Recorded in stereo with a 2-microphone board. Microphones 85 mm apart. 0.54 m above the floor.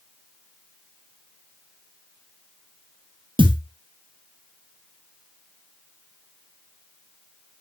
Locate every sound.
3.4 s a thud: 75° right (ahead or behind), 1.7 m